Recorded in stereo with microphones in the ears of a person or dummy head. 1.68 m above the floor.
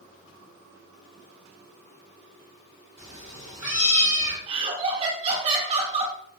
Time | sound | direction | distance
3.0 | a cat meowing | 10° right (ahead or behind) | 1.3 m
4.5 | laughter | 35° right (ahead or behind) | 0.9 m